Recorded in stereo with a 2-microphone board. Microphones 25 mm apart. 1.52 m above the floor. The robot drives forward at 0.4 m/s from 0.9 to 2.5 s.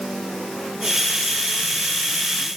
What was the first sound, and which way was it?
Only background noise.